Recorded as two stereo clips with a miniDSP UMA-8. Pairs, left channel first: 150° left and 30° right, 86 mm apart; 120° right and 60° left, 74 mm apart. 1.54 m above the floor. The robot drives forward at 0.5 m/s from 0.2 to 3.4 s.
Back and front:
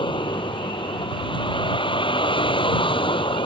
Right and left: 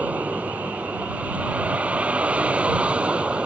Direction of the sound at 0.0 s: 130° left.